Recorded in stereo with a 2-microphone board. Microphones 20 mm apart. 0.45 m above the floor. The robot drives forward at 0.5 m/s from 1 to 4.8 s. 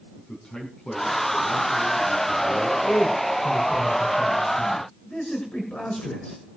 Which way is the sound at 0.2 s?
55° left (ahead or behind).